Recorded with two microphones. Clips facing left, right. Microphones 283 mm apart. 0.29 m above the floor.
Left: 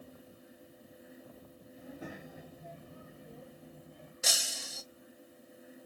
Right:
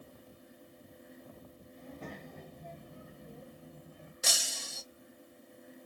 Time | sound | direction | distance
1.8 | a child speaking | 10° left (ahead or behind) | 0.8 m
4.2 | breaking glass | centre (ahead or behind) | 0.8 m